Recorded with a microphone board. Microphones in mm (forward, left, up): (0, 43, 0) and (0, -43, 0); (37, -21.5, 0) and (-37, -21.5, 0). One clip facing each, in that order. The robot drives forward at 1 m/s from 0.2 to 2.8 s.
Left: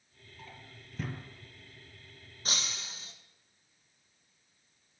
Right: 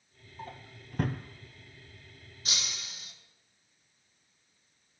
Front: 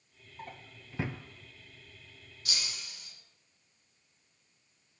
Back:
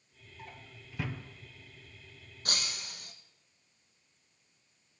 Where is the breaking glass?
140° left, 1.4 m; by 3.1 s 150° left, 1.7 m.